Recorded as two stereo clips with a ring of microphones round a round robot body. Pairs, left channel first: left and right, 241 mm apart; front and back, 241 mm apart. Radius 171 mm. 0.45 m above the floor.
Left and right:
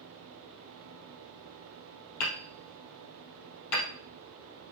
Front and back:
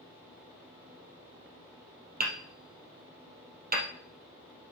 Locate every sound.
2.2 s hammering: 125° left, 3 m